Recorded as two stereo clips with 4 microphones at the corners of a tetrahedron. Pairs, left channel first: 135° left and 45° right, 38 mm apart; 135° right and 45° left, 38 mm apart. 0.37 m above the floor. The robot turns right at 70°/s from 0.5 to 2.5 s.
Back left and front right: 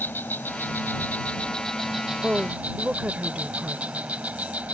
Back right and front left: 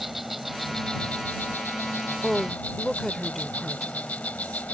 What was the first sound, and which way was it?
An insect, 125° left.